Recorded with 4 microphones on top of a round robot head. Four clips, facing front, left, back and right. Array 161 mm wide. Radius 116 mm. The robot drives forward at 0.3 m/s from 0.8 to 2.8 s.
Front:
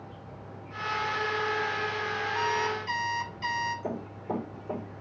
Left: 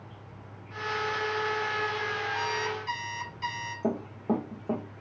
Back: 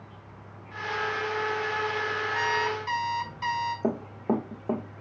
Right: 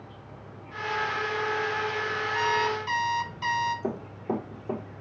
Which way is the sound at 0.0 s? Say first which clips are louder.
Right 3 dB, front 3 dB; 160° right.